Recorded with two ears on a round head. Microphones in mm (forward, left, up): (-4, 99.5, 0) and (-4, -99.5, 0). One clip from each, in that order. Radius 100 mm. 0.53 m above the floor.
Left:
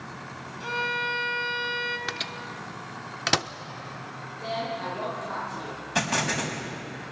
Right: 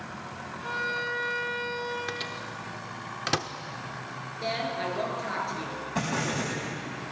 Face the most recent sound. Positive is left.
turn(degrees=70)  # may be behind; listen again after turning